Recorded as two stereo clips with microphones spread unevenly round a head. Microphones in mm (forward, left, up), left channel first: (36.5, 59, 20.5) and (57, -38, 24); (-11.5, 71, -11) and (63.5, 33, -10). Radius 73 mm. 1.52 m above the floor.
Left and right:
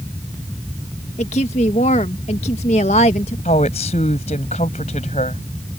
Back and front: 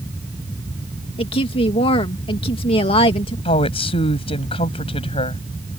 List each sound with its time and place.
1.2 s a woman speaking: 145° left
3.5 s a woman speaking: 150° left